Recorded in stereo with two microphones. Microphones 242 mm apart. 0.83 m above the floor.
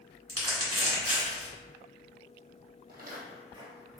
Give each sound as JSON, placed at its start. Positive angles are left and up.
{"t": 0.3, "sound": "crumpling", "side_deg": -80, "distance_m": 1.7}
{"t": 2.9, "sound": "footsteps", "side_deg": -45, "distance_m": 1.8}